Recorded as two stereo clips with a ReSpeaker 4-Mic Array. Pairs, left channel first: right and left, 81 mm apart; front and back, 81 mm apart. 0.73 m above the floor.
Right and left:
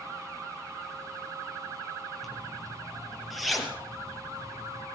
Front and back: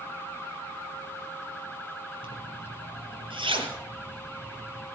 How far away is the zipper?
About 3 m.